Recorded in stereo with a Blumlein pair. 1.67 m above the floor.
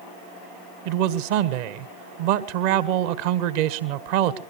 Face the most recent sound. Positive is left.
turn(degrees=-45)